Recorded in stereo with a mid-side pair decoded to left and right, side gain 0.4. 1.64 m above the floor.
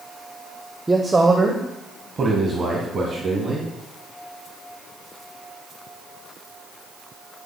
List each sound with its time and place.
0.9 s a man speaking: 20° right, 1.0 m; by 3.7 s 55° right, 3 m